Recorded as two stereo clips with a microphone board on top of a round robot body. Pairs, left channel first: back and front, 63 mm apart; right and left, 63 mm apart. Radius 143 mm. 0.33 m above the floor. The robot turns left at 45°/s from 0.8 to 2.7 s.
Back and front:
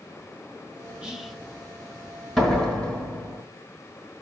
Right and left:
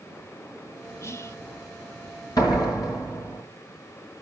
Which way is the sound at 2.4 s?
95° right.